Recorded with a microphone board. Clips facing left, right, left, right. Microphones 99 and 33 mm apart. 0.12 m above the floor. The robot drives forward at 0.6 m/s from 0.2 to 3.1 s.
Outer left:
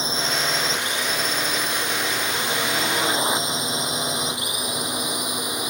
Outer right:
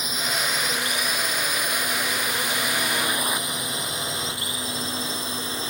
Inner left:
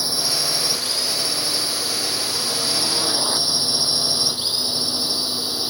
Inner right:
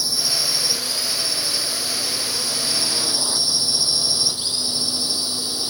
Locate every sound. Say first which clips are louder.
0.0 s a drone: outer left 3 dB, even; 30° left (ahead or behind); by 5.7 s 15° left (ahead or behind)